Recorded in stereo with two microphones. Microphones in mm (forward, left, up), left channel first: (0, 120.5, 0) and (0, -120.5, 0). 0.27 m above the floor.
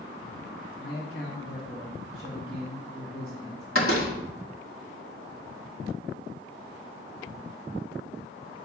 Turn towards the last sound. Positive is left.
turn(degrees=55)  # may be behind; listen again after turning